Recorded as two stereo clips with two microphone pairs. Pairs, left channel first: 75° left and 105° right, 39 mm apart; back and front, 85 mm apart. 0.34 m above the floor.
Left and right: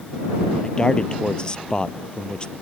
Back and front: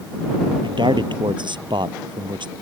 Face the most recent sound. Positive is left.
turn(degrees=10)